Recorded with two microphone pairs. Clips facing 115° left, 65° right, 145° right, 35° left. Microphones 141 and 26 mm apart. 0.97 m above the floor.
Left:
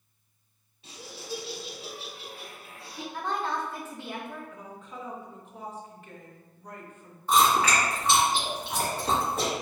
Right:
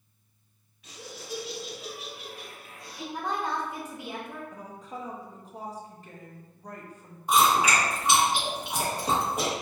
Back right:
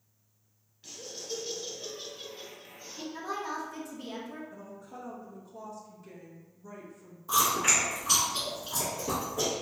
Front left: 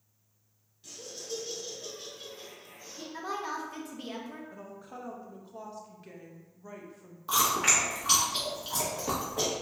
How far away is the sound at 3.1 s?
About 0.8 m.